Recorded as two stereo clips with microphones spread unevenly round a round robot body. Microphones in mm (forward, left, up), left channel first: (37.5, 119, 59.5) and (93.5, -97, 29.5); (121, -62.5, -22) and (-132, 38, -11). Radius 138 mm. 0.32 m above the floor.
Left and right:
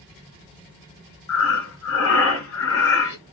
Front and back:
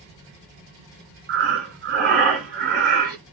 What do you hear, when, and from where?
1.3 s breathing: 115° left, 1.9 m